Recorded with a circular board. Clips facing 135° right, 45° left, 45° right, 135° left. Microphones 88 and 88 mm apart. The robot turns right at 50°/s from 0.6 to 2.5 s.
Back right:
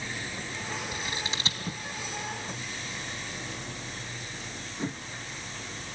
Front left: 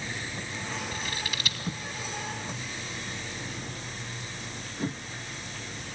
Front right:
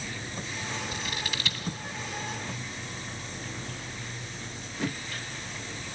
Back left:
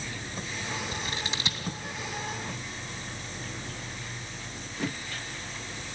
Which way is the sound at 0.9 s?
160° left.